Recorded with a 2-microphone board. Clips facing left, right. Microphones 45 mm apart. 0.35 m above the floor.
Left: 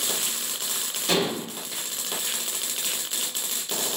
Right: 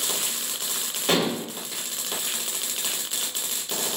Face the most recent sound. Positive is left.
turn(degrees=-35)  # may be behind; listen again after turning